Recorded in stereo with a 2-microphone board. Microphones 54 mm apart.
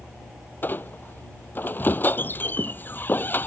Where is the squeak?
40° left (ahead or behind).